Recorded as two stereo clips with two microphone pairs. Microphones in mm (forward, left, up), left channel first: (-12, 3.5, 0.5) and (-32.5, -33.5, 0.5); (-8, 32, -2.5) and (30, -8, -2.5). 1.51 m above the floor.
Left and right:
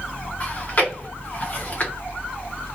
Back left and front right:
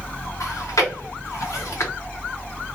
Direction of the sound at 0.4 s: 110° left.